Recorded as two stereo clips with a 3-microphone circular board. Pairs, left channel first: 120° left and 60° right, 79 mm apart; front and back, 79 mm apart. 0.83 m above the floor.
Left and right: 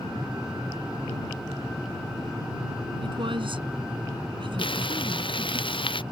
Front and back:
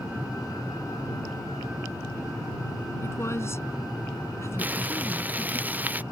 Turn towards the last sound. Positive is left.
turn(degrees=110)